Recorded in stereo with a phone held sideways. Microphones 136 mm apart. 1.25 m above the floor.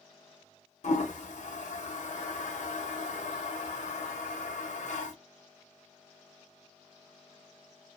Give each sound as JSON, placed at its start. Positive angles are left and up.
{"t": 0.8, "sound": "a toilet flushing", "side_deg": 65, "distance_m": 0.7}